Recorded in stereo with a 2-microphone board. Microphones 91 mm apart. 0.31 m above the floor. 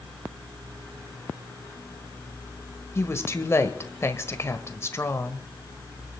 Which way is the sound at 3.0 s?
30° left (ahead or behind).